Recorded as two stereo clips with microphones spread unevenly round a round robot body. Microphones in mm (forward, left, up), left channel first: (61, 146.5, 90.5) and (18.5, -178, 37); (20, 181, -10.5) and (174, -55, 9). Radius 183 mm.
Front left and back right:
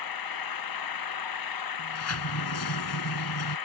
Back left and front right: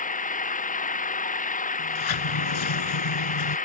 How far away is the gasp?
I don't hear a gasp.